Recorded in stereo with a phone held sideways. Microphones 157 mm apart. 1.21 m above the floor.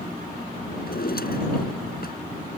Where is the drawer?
75° left (ahead or behind).